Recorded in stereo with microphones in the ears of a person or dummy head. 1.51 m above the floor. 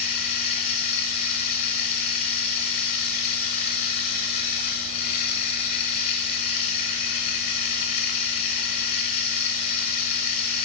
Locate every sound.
0.0 s running water: 35° left (ahead or behind), 1.7 m